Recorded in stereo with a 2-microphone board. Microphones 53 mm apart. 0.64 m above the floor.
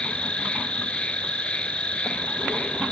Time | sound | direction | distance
0.0 | an insect | 20° left (ahead or behind) | ?